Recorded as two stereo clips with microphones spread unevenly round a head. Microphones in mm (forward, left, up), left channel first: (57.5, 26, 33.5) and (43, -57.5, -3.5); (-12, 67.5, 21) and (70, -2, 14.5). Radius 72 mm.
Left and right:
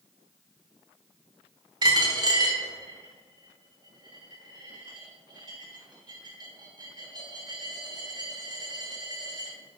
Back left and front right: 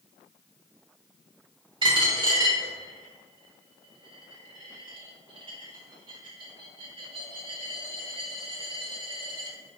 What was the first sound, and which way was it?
A dropped coin, 55° right.